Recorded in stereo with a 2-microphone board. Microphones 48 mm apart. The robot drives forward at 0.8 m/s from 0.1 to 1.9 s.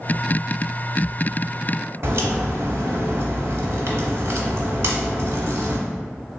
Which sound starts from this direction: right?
A crack, at 2.0 s.